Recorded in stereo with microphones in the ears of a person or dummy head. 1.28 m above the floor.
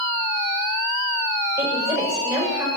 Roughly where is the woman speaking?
Centre.